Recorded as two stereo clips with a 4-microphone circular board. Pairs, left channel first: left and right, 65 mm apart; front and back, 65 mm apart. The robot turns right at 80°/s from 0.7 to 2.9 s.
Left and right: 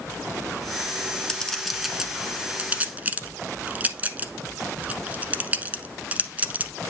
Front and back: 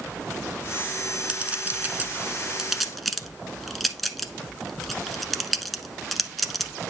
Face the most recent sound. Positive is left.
turn(degrees=-85)